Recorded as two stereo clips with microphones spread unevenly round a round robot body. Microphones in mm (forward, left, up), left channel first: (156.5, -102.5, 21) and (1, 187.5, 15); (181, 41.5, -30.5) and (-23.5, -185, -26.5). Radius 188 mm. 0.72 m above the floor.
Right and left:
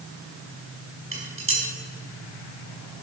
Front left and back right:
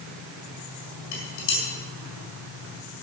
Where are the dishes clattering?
65° left, 4.5 m.